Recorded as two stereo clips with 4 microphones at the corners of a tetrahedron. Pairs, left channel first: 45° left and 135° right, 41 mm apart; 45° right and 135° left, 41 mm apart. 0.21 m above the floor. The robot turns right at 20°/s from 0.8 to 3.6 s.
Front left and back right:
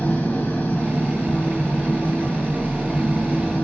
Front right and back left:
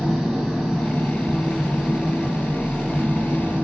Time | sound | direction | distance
0.0 | an engine running | 40° left | 1.3 m